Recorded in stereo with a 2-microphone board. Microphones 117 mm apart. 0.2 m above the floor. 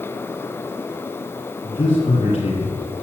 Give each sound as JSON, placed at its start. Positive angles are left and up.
{"t": 1.6, "sound": "a man speaking", "side_deg": 45, "distance_m": 6.0}